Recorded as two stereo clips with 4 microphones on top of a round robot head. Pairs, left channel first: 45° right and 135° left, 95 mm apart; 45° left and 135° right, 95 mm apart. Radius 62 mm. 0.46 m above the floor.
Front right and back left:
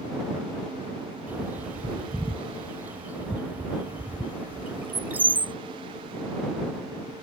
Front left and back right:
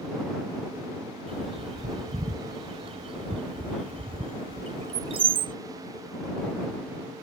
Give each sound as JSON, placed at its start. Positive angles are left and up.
{"t": 1.3, "sound": "a bird", "azimuth_deg": -155}